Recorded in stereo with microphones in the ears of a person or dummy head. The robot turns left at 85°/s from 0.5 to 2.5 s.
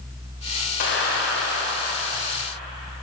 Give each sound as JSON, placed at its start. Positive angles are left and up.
{"t": 0.8, "sound": "a clap", "azimuth_deg": 125, "distance_m": 3.5}